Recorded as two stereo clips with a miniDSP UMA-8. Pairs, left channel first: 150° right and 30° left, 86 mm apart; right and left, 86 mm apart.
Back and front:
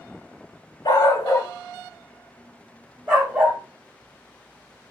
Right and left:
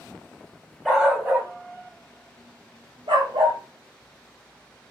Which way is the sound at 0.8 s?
Straight behind.